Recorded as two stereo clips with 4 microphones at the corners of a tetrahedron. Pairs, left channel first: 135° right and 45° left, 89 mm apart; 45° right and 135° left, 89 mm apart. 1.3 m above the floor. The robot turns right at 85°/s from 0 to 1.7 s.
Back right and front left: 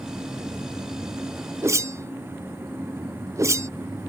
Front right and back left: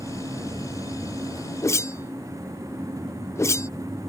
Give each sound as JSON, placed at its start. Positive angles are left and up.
{"t": 1.6, "sound": "a whoosh", "azimuth_deg": -5}